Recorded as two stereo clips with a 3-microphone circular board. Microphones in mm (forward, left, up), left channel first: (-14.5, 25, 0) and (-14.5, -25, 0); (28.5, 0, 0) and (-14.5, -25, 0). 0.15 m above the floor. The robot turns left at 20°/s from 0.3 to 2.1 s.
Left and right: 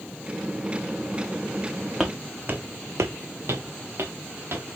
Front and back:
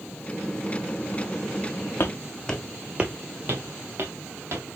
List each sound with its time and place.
2.0 s footsteps: 10° right, 0.7 m; by 4.7 s 125° right, 1.7 m